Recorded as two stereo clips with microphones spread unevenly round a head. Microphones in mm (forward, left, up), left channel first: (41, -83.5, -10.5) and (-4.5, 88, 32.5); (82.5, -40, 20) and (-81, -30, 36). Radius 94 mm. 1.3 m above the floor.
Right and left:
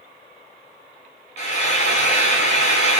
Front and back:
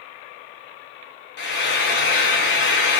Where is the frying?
20° right, 2 m.